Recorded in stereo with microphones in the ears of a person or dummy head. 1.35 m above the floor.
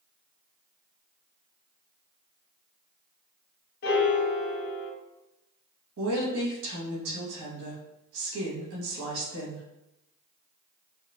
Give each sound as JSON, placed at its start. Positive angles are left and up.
{"t": 3.8, "sound": "a piano", "side_deg": 55, "distance_m": 0.8}
{"t": 6.0, "sound": "a woman speaking", "side_deg": -70, "distance_m": 1.5}